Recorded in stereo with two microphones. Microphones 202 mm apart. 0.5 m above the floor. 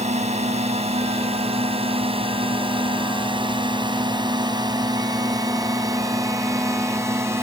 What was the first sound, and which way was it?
A drone, 35° right (ahead or behind).